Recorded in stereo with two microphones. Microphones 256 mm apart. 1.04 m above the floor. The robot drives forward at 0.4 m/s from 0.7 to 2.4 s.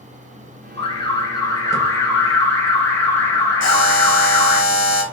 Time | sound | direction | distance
0.8 | an alarm | 20° left (ahead or behind) | 0.5 m
3.6 | a buzzer | 80° left | 0.9 m